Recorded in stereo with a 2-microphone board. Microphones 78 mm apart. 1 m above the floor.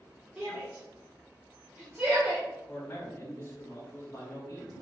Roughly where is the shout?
Centre.